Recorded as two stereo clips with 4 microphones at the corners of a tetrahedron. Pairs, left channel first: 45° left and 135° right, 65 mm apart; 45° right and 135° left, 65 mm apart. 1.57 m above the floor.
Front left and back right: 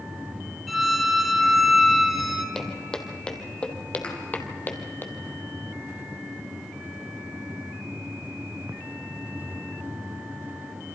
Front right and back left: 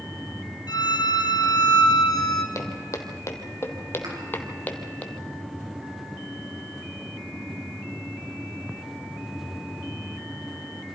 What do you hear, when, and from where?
0.7 s a violin: 45° right, 2 m
2.5 s footsteps: 30° right, 2.5 m; by 5.0 s 15° left, 2.0 m
4.0 s a thud: 120° left, 5.5 m